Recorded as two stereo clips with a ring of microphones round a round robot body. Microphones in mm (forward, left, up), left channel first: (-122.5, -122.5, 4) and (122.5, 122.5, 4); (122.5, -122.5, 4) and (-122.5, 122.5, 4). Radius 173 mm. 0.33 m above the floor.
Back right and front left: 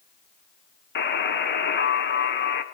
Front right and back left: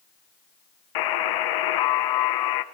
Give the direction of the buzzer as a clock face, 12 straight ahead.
2 o'clock.